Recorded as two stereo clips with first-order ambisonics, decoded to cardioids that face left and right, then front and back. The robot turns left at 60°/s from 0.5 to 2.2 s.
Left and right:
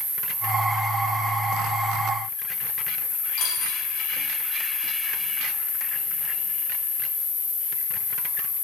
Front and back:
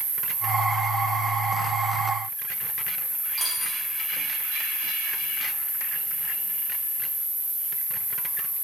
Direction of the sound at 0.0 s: 165° right.